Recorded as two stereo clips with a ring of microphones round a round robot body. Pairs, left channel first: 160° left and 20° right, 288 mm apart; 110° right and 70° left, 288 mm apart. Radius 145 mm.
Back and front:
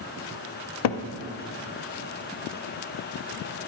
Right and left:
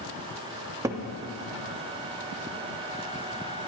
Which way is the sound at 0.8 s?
150° left.